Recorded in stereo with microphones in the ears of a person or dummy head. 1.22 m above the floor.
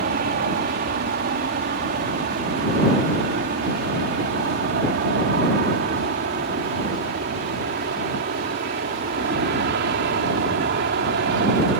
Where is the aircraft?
50° right (ahead or behind); by 11.8 s 55° right (ahead or behind).